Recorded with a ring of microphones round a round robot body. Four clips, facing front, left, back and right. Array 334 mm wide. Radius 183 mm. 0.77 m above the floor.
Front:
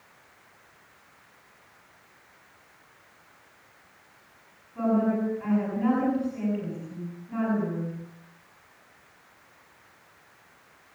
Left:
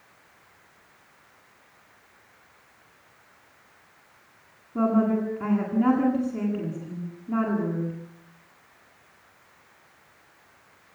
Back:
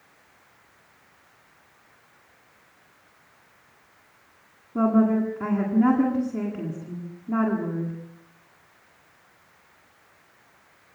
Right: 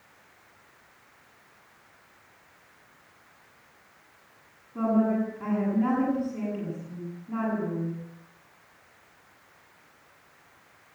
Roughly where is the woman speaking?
Behind left.